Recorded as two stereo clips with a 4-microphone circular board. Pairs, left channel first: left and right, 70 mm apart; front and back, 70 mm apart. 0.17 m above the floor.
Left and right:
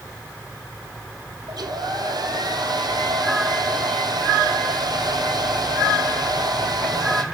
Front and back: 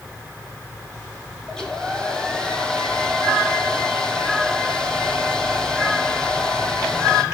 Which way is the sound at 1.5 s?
80° right.